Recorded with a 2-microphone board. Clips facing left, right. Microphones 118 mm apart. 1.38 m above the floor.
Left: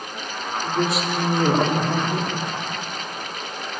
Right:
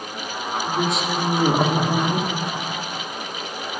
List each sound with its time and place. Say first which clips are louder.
0.6 s a woman speaking: left 1 dB; 5° left (ahead or behind), 3 m; by 2.3 s 20° right (ahead or behind), 2.5 m